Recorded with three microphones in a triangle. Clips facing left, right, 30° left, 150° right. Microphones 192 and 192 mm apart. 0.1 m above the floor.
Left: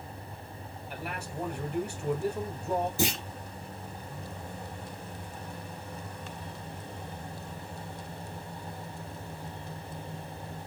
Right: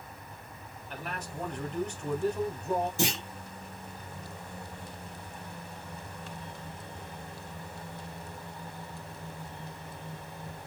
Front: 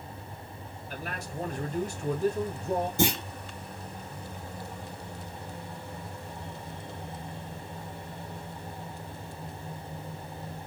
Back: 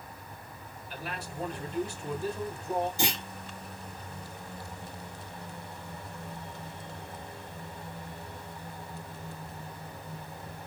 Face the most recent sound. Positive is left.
turn(degrees=5)